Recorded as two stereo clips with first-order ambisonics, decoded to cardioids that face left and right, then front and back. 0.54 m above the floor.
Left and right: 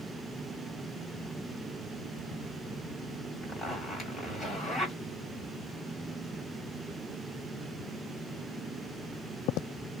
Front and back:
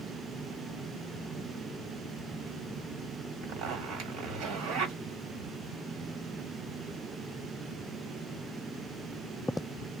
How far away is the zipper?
About 1.2 m.